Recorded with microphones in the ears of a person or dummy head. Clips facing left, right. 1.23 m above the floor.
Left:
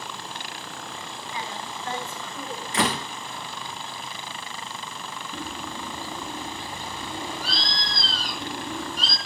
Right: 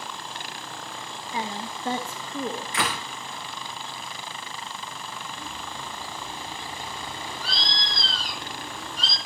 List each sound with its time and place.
1.3 s a woman speaking: 30° right (ahead or behind), 1.1 m
2.7 s a door slam: 30° left (ahead or behind), 0.7 m
5.3 s a bird: 45° left (ahead or behind), 4 m